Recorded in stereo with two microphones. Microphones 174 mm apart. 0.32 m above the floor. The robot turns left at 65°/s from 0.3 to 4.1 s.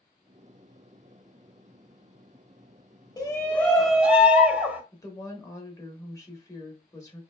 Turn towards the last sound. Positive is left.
turn(degrees=20)  # may be behind; listen again after turning